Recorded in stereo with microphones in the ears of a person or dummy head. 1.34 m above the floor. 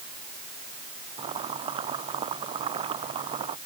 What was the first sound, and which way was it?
Boiling, 25° right (ahead or behind).